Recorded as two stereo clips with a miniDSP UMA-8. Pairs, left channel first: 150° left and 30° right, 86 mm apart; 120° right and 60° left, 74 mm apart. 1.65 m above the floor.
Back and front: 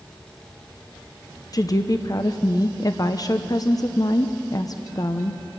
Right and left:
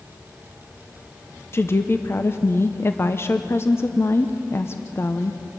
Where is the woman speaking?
170° right, 0.8 m.